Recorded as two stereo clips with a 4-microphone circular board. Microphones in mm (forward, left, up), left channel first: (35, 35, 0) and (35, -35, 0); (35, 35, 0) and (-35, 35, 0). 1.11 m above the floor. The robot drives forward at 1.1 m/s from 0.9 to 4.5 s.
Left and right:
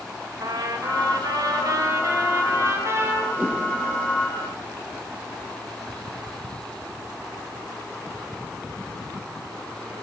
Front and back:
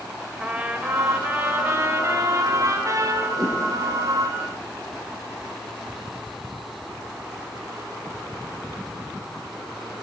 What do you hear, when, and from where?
0.4 s a trumpet: 105° right, 2.5 m; by 3.3 s 145° right, 4 m
3.4 s a whoosh: 150° right, 7 m; by 3.6 s 155° right, 7 m